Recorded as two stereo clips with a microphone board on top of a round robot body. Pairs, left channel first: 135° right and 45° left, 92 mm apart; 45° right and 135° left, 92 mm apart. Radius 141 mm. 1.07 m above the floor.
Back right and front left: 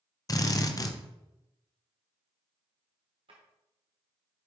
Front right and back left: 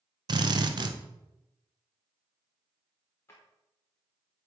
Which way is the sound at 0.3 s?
175° left.